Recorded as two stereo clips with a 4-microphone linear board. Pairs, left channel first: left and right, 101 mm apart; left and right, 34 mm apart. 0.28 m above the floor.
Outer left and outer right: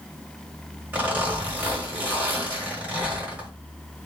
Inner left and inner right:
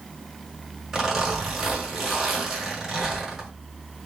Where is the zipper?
15° right (ahead or behind), 1.4 m.